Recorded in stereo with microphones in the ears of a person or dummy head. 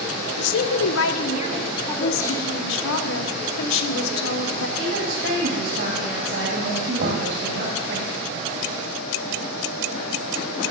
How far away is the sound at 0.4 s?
About 0.8 m.